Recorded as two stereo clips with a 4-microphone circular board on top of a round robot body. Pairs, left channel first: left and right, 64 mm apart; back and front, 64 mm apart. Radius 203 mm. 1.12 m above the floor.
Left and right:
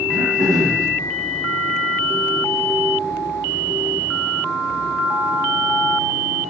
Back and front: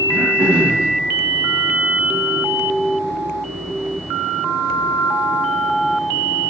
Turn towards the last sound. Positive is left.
turn(degrees=-70)